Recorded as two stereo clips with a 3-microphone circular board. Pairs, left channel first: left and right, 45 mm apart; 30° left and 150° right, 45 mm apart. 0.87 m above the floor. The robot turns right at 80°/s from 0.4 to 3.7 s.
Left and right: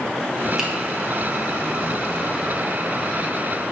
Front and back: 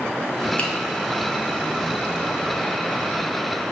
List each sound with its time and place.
0.6 s a finger snap: 10° right, 0.7 m; by 0.7 s straight ahead, 0.7 m